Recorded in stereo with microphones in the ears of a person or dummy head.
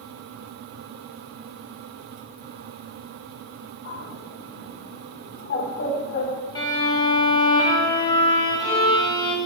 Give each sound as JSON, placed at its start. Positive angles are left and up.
{"t": 3.9, "sound": "a bird", "side_deg": 50, "distance_m": 2.0}
{"t": 6.5, "sound": "a violin", "side_deg": 25, "distance_m": 0.9}